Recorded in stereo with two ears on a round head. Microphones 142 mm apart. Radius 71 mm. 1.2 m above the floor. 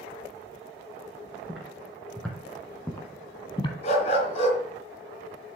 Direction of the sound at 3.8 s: 45° left (ahead or behind).